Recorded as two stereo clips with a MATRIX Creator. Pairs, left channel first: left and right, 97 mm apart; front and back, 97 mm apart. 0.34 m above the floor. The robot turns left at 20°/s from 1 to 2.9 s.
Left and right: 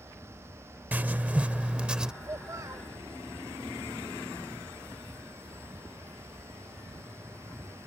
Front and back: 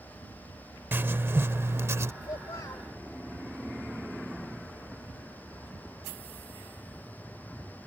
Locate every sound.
0.9 s writing: 145° right; by 2.1 s 165° right
2.2 s a child speaking: 35° right; by 2.9 s 45° right